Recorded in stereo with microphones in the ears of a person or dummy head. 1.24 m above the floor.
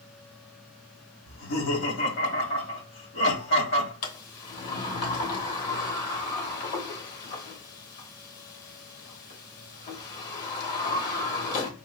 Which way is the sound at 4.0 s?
50° left (ahead or behind).